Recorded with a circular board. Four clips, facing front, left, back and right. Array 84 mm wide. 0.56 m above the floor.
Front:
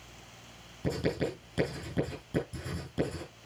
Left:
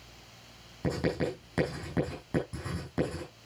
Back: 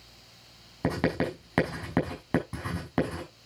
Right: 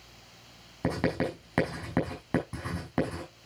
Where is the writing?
150° right, 5.5 m.